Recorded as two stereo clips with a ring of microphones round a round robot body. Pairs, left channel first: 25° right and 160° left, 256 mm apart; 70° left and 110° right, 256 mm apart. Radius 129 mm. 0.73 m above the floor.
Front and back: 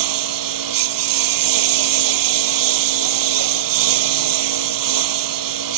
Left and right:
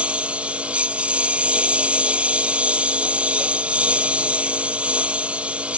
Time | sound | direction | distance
0.0 | a lawn mower | 160° left | ?